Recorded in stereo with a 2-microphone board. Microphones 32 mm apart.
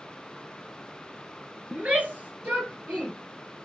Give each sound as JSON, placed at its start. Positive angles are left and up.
{"t": 1.7, "sound": "a shout", "side_deg": -50, "distance_m": 2.5}